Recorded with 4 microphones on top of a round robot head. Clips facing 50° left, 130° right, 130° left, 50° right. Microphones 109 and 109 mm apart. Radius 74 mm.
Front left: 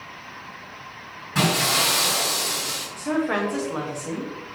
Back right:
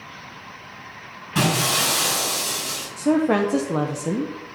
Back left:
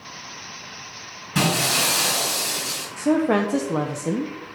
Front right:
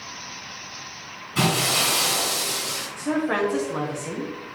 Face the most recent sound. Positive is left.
turn(degrees=180)